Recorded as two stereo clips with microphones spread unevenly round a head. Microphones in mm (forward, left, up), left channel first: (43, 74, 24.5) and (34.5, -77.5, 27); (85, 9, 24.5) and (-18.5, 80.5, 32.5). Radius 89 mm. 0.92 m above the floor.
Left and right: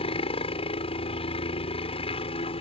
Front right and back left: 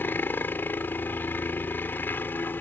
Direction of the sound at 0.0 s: 40° left.